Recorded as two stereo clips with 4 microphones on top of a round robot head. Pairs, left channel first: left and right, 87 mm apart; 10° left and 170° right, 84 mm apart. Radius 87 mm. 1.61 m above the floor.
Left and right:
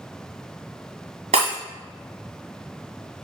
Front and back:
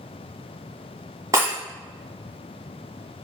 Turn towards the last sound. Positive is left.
turn(degrees=-105)